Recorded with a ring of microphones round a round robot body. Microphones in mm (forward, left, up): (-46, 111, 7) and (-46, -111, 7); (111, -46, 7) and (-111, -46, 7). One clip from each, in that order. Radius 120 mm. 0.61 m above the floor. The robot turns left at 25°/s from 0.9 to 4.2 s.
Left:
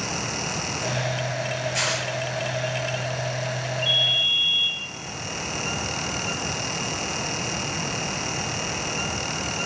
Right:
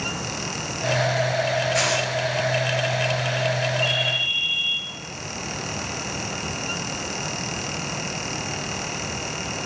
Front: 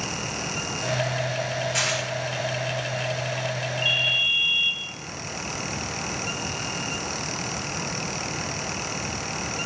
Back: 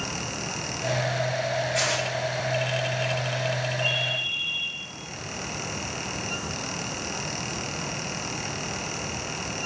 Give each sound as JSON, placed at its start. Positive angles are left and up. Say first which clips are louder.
{"t": 1.7, "sound": "tearing paper", "louder": "right 1 dB, front 1 dB", "azimuth_deg": 10, "distance_m": 3.5}
{"t": 3.8, "sound": "a ringtone", "louder": "left 4 dB, front 6 dB", "azimuth_deg": -15, "distance_m": 5.0}